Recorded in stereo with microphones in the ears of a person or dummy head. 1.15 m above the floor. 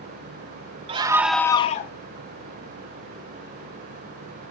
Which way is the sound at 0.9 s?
30° right (ahead or behind).